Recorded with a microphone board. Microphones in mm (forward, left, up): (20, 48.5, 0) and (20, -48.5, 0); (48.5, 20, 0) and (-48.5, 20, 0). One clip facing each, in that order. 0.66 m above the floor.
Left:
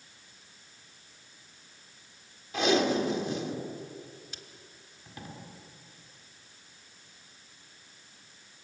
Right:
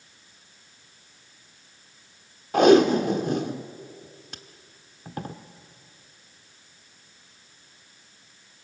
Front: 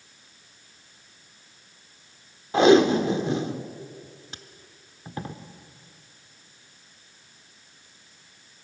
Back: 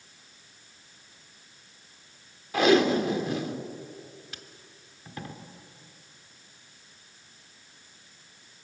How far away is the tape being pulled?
About 1.2 m.